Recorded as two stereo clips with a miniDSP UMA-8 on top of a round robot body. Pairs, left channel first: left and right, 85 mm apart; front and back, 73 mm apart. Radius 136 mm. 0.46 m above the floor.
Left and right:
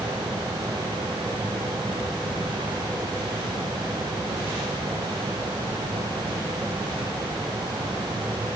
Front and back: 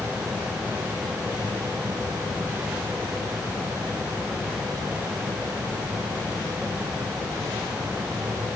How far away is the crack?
No crack in this recording.